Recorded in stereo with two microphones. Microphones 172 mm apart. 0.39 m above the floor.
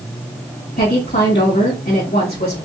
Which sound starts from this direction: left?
A woman speaking, at 0.8 s.